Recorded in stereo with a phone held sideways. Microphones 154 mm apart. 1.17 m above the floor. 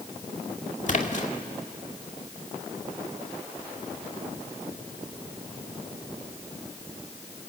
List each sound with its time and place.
0.9 s a splash: 55° left (ahead or behind), 2 m